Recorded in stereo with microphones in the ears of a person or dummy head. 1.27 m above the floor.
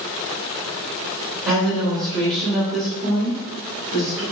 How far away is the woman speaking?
About 1.5 m.